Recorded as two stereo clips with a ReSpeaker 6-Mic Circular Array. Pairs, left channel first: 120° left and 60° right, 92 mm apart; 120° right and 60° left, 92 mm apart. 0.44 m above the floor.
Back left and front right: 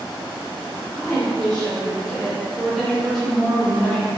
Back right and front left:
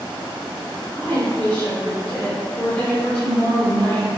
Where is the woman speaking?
160° right, 1.5 m.